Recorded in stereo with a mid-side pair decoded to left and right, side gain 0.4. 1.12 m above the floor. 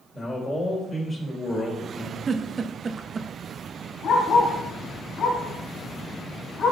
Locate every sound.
0.1 s a man speaking: 35° left, 4 m
2.3 s a giggle: 40° right, 0.7 m
4.0 s a dog barking: 65° left, 3.5 m